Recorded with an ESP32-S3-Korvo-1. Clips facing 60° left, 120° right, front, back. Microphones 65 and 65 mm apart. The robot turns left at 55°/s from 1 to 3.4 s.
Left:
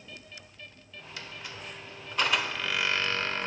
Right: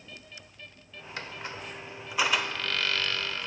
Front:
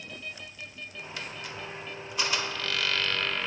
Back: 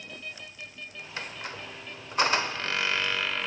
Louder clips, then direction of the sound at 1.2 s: Right 4 dB, back 2 dB; 145° right.